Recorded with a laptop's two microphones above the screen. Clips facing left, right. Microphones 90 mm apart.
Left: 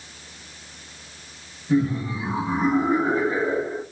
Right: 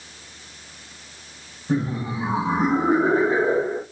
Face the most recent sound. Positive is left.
turn(degrees=-70)  # may be behind; listen again after turning